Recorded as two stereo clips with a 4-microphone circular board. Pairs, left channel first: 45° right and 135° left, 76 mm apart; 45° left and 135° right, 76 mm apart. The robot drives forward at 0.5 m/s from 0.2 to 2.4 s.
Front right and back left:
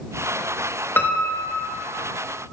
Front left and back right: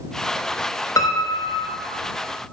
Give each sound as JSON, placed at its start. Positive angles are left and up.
{"t": 1.0, "sound": "a piano", "azimuth_deg": 15, "distance_m": 0.9}